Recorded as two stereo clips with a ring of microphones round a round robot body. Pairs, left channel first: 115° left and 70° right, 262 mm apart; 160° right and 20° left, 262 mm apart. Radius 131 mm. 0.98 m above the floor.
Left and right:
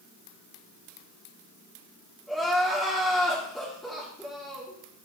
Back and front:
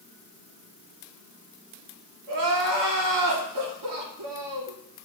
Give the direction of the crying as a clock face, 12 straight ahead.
11 o'clock.